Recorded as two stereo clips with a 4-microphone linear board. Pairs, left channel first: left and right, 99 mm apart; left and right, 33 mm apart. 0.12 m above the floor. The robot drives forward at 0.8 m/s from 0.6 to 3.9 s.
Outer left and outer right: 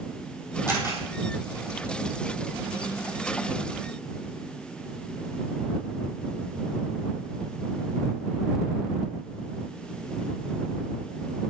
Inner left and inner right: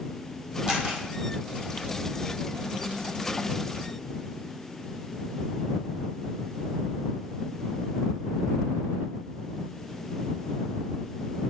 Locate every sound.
0.7 s a camera shutter: 25° right (ahead or behind), 2.5 m; by 1.0 s 30° right (ahead or behind), 2 m